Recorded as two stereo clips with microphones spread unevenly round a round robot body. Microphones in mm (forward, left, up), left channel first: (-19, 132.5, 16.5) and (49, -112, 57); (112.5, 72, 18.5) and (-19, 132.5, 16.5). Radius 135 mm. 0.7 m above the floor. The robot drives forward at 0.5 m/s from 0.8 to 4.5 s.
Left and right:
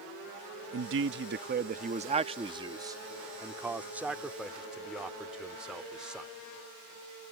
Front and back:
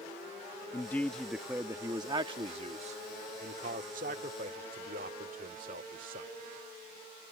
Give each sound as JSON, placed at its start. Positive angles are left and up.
{"t": 0.7, "sound": "a man speaking", "azimuth_deg": -90}